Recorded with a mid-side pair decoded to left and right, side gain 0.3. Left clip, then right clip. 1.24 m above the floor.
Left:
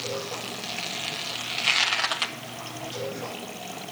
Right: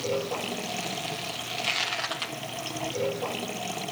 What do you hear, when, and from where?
0.0 s running water: 50° right